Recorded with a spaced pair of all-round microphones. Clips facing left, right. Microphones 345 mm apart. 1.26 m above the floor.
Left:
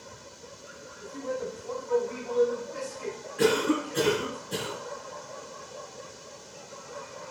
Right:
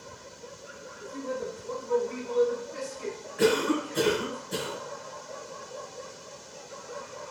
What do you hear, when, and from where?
1.0 s a man speaking: 25° right (ahead or behind), 0.8 m
3.4 s a cough: 45° left (ahead or behind), 1.9 m